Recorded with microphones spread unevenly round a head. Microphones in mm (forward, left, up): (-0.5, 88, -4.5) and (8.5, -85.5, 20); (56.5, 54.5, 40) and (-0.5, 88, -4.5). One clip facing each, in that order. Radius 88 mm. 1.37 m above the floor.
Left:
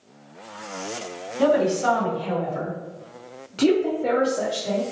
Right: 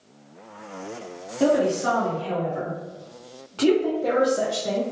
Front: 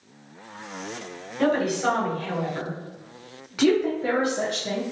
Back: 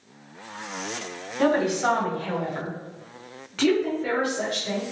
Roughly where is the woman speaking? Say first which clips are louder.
Left 1 dB, back 1 dB; left.